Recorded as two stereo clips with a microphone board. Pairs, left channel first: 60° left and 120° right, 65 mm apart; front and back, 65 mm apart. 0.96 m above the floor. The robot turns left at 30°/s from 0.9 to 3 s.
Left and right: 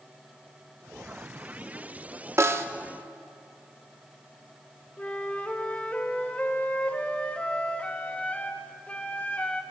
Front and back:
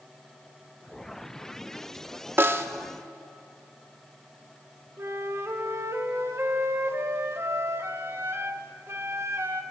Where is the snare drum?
140° right, 0.5 m; by 2.7 s 150° right, 0.5 m.